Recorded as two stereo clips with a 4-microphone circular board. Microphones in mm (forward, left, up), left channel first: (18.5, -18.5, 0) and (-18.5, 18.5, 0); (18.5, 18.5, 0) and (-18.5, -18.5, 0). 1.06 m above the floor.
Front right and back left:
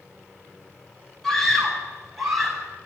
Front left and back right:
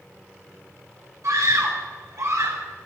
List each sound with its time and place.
1.2 s a scream: 125° right, 8.5 m; by 2.6 s 135° right, 9 m